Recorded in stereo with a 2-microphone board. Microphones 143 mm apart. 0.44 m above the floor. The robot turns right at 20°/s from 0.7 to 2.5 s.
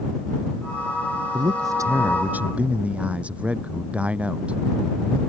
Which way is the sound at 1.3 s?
35° right (ahead or behind).